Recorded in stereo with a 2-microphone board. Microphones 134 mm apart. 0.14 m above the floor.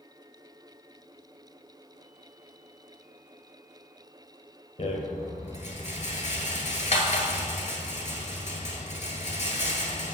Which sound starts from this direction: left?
A rattle, at 4.8 s.